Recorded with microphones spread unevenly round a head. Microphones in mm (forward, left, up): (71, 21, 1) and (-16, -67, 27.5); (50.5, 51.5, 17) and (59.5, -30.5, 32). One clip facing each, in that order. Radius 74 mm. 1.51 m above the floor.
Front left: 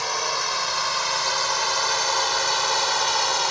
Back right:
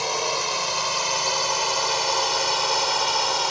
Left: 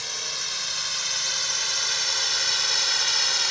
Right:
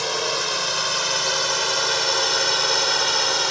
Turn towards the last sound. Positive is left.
turn(degrees=-55)